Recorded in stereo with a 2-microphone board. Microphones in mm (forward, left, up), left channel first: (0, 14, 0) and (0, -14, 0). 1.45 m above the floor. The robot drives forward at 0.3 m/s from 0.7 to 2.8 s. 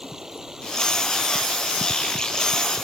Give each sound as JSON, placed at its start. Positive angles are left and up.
{"t": 0.0, "sound": "running water", "side_deg": -20}